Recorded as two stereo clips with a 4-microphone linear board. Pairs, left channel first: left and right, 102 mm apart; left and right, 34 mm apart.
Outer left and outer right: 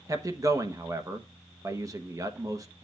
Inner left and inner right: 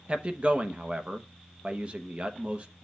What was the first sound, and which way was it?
A man speaking, 35° right (ahead or behind).